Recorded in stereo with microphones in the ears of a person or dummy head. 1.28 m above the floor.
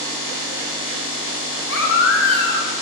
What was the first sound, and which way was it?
A baby crying, 75° left (ahead or behind).